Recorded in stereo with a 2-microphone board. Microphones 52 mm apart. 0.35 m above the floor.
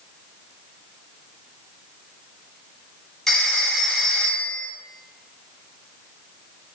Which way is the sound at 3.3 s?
10° left (ahead or behind).